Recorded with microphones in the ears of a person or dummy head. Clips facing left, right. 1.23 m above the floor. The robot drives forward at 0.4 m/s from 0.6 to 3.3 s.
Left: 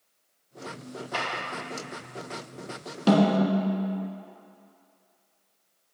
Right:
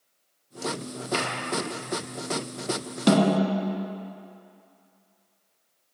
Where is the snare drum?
15° right (ahead or behind), 0.9 m; by 3.9 s 20° right (ahead or behind), 0.9 m.